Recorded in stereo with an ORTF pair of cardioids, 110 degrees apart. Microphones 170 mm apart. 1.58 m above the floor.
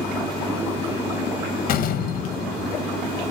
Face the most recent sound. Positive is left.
turn(degrees=65)